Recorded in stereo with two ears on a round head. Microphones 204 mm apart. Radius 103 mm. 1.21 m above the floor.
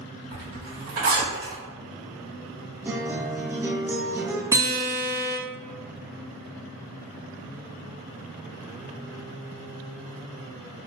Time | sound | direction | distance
0.3 | a zipper | 45° right (ahead or behind) | 1.7 m
2.9 | a guitar | 10° right (ahead or behind) | 0.5 m
4.5 | a guitar | 15° right (ahead or behind) | 0.8 m